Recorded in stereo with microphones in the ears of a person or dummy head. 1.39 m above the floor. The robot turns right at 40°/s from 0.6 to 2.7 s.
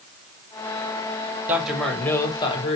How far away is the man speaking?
About 1.7 m.